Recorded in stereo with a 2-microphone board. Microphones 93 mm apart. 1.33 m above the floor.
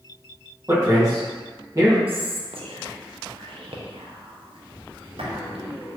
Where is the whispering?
80° right, 0.8 m.